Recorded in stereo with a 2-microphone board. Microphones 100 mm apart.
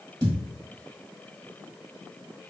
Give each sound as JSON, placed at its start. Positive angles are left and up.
{"t": 0.2, "sound": "a thud", "side_deg": -45, "distance_m": 1.8}